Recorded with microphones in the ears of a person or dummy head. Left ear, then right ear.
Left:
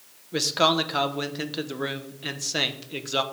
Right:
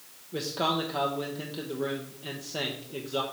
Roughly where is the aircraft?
I don't hear an aircraft.